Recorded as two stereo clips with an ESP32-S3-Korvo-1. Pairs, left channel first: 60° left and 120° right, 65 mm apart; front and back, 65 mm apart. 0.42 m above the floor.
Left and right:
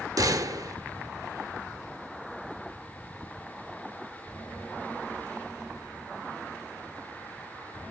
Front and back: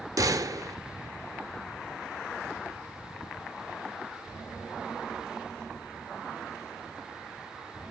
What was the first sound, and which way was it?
A gunshot, 145° right.